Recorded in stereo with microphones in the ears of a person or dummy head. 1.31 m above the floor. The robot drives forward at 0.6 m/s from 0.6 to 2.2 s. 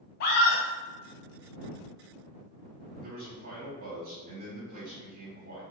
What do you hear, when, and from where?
0.2 s a scream: 60° left (ahead or behind), 0.6 m
3.0 s a man speaking: 50° right (ahead or behind), 1.0 m